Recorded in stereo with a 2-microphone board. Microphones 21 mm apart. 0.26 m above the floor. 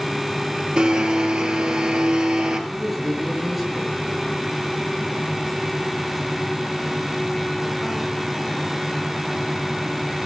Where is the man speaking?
5° right (ahead or behind), 5 m.